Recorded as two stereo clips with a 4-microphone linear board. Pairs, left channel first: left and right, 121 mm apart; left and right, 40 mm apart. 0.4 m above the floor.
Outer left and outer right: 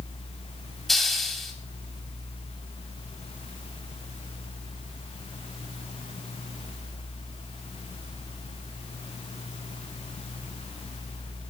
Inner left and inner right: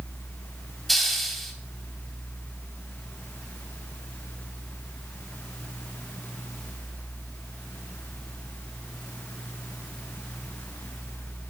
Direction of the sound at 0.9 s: Centre (ahead or behind).